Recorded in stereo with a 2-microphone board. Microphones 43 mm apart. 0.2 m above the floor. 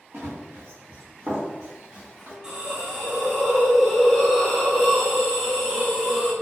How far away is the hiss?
About 0.8 m.